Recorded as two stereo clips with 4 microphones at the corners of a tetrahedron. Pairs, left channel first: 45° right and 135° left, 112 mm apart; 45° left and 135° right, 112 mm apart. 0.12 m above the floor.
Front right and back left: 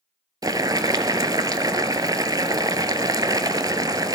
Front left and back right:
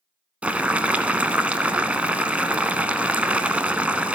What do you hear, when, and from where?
0.4 s boiling: 155° left, 0.5 m